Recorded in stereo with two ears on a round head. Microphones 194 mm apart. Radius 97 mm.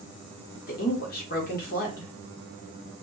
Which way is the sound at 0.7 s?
45° left (ahead or behind).